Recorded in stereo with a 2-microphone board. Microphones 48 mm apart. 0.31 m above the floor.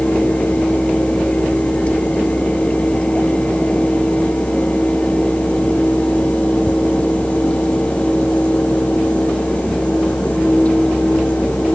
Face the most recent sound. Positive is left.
No sound to turn to.